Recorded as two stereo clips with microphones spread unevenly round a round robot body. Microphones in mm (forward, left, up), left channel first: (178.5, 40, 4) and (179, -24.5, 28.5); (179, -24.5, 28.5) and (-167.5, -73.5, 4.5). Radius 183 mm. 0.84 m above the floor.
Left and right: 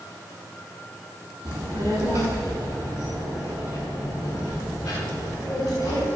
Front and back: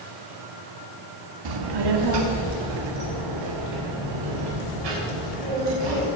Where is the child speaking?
160° right, 1.4 m; by 6.1 s straight behind, 4 m.